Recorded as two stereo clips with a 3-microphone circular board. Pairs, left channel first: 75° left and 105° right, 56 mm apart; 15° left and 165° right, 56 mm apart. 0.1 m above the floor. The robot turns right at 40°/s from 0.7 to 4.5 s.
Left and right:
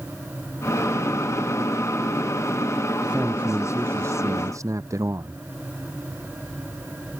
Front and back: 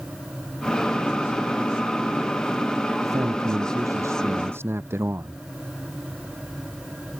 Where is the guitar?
No guitar in this recording.